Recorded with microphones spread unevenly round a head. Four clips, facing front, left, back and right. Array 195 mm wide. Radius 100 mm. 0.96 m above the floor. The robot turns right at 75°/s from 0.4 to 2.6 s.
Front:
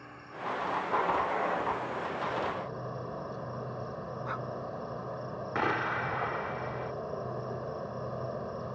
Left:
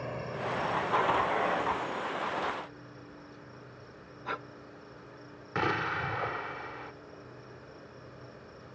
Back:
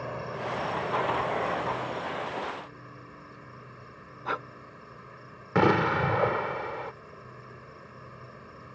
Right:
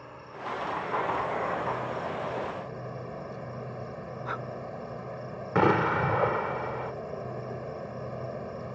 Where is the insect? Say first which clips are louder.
Left 4 dB, back 6 dB; 135° left; by 8.8 s 60° right.